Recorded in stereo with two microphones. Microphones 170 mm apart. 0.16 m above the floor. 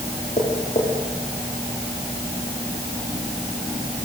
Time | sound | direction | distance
0.4 | tapping | 45° left (ahead or behind) | 8.5 m